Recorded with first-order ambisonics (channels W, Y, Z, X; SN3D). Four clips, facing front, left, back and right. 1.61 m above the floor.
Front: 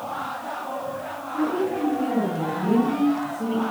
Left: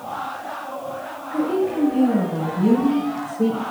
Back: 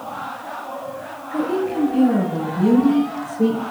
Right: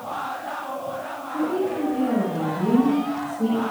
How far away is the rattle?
No rattle in this recording.